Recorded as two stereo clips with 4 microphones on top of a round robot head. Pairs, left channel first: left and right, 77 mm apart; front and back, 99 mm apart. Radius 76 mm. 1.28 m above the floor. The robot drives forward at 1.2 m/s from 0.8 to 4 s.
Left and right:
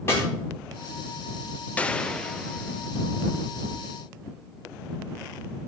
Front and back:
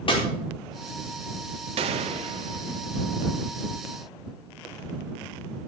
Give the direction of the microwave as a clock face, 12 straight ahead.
I don't hear a microwave.